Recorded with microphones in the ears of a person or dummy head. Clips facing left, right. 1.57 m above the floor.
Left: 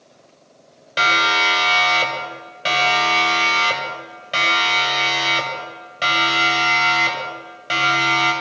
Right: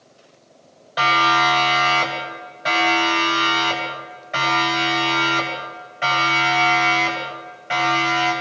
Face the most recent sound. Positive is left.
turn(degrees=50)  # may be behind; listen again after turning